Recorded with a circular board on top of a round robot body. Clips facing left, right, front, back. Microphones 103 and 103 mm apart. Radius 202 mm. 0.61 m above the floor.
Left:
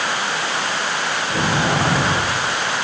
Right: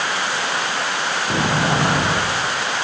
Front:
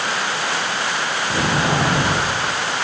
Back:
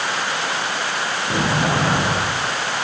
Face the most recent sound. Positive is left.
turn(degrees=-120)